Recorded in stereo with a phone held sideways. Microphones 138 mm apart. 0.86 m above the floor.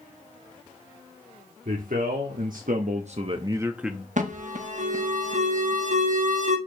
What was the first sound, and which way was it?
A man speaking, 70° right (ahead or behind).